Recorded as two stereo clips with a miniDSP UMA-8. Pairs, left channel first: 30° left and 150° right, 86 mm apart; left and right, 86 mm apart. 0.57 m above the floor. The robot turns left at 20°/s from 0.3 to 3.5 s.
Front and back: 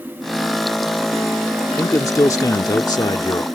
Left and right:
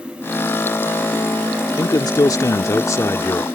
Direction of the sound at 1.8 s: 75° left.